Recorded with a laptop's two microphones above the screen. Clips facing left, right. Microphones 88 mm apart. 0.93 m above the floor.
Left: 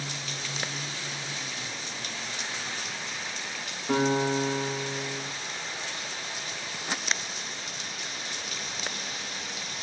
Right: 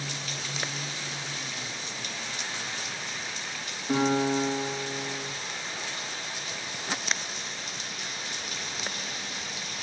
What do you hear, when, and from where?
3.9 s a guitar: 85° left, 8.5 m